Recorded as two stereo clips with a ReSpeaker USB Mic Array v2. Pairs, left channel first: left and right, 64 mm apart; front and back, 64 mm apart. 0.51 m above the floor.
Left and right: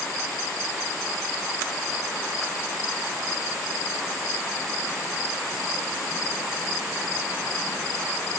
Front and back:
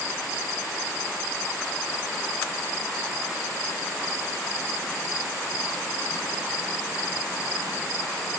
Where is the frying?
No frying in this recording.